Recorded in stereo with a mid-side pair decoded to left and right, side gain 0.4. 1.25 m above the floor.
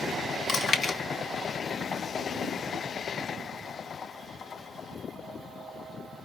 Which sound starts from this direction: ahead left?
Chewing, at 0.5 s.